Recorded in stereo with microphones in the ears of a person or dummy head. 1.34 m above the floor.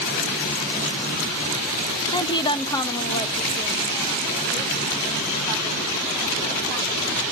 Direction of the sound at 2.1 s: 30° left (ahead or behind).